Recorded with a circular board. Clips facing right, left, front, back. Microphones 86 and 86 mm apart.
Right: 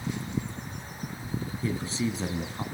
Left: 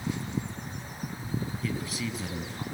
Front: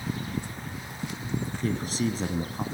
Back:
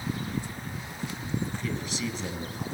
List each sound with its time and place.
1.6 s a man speaking: 35° right, 2 m